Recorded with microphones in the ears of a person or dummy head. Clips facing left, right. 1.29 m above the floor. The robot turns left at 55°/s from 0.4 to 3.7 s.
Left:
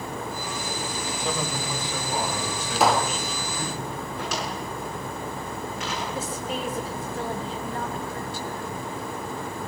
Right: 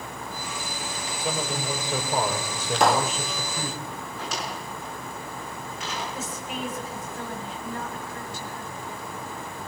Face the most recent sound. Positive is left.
turn(degrees=30)  # may be behind; listen again after turning